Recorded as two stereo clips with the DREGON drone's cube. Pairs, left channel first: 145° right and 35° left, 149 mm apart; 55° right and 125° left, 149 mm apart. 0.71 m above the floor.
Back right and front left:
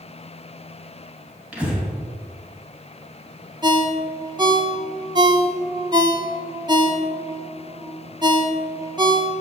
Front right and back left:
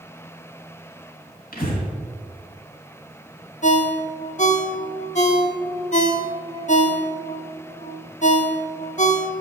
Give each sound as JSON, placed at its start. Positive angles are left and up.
{"t": 1.5, "sound": "breathing", "azimuth_deg": -45, "distance_m": 2.5}
{"t": 3.6, "sound": "a ringtone", "azimuth_deg": -25, "distance_m": 0.9}